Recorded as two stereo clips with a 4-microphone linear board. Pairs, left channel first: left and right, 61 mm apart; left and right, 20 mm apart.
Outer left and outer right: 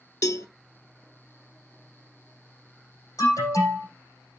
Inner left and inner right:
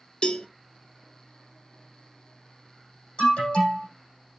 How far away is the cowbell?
About 0.6 m.